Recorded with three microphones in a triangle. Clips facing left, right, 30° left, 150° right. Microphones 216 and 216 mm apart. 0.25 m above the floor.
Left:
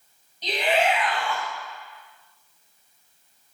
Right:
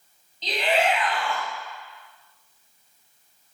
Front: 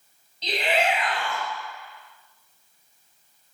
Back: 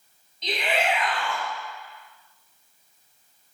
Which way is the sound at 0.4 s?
20° left.